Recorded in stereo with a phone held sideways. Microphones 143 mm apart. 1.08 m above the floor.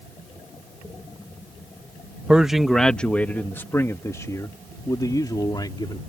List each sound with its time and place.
2.3 s a man speaking: 10° right (ahead or behind); by 6.0 s 30° left (ahead or behind)